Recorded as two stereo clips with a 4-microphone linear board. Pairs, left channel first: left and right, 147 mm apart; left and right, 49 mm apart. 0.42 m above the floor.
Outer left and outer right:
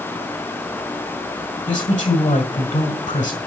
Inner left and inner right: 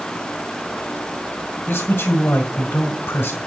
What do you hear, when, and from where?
1.7 s a man speaking: 60° left (ahead or behind), 2.0 m